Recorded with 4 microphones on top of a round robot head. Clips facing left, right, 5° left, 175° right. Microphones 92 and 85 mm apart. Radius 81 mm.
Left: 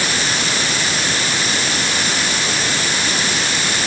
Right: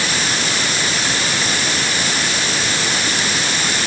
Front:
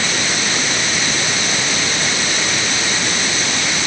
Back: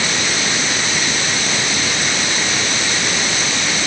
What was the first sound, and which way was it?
Only background noise.